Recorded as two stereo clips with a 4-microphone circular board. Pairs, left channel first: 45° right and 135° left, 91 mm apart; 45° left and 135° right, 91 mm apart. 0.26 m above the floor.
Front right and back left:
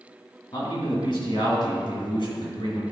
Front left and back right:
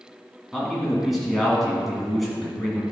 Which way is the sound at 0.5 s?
45° right.